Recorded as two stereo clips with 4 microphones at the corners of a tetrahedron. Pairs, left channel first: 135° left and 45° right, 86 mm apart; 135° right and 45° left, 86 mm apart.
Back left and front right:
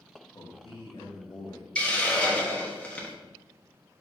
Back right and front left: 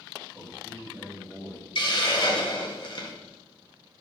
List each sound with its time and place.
0.3 s a man speaking: 110° left, 2.5 m
1.8 s a hiss: 155° right, 1.3 m